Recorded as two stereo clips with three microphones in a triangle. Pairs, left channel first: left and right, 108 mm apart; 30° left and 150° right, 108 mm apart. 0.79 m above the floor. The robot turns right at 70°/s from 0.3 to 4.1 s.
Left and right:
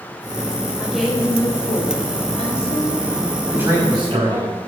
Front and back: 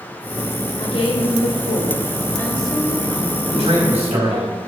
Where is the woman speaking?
15° right, 3.5 m; by 4.5 s 140° right, 3.5 m.